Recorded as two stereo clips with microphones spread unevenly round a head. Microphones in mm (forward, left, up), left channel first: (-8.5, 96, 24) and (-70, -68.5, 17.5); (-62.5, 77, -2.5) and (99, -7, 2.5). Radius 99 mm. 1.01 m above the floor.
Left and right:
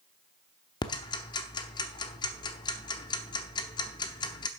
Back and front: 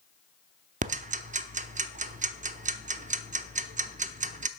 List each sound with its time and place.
0.8 s ticking: 5° left, 0.7 m